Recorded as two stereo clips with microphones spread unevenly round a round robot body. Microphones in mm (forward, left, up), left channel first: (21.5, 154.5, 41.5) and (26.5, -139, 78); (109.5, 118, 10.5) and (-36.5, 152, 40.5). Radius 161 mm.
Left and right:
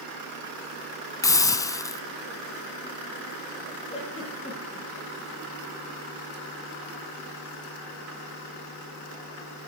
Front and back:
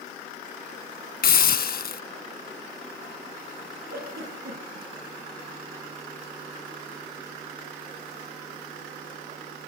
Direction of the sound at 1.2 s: 10° left.